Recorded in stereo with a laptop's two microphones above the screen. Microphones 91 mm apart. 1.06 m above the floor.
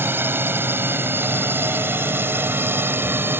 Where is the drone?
25° right (ahead or behind).